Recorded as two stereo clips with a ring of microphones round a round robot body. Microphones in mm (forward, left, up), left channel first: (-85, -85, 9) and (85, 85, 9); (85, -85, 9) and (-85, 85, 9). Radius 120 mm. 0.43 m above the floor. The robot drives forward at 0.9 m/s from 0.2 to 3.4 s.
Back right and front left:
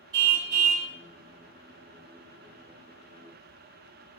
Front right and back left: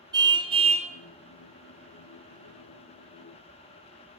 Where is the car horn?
60° left, 2.5 m; by 0.9 s 75° left, 2.5 m.